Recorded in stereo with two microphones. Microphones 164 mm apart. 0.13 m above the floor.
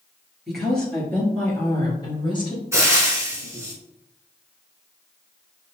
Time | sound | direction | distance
0.5 | a woman speaking | centre (ahead or behind) | 2 m
2.7 | frying | 15° right (ahead or behind) | 1.6 m